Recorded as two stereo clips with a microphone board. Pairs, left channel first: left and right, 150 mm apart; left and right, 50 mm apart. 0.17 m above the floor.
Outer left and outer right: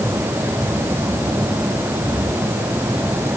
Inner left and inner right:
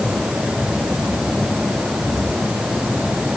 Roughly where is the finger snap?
No finger snap in this recording.